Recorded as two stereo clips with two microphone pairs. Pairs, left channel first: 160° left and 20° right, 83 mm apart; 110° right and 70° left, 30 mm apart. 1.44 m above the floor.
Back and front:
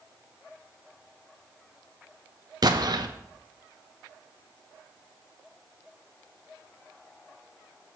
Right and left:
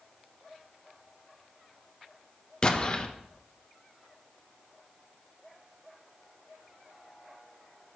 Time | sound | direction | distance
2.6 | an explosion | 50° right | 0.9 m